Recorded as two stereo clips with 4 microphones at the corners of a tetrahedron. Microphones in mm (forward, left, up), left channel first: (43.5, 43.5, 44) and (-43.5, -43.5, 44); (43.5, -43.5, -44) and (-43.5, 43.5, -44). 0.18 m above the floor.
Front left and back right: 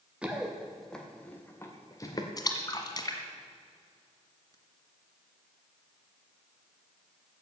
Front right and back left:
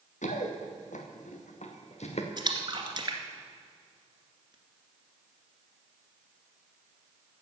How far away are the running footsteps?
About 2.5 m.